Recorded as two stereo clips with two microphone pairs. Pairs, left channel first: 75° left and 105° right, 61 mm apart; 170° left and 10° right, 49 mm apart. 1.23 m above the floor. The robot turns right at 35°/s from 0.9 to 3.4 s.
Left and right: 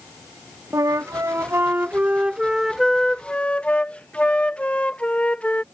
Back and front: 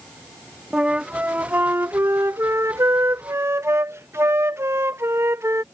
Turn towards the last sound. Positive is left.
turn(degrees=5)